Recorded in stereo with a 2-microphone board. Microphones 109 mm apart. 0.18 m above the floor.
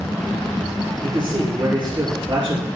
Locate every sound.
1.0 s a man speaking: 50° right (ahead or behind), 4.5 m